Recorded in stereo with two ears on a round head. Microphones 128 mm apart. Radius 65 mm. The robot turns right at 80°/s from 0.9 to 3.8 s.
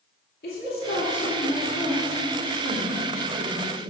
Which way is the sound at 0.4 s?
95° left.